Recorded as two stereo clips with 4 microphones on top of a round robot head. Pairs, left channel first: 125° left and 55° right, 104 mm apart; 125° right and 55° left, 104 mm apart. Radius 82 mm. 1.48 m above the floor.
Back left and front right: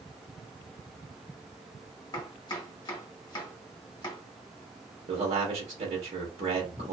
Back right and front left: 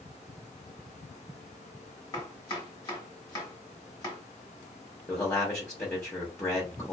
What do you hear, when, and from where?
2.1 s chopping: straight behind, 0.9 m
5.1 s a man speaking: 60° right, 1.0 m